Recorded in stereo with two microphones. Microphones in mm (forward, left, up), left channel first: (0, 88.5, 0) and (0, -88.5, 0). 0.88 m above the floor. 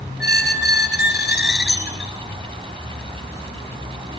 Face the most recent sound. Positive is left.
turn(degrees=70)  # may be behind; listen again after turning